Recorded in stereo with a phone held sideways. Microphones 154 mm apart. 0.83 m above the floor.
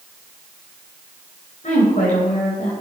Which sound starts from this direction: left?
A woman speaking, at 1.6 s.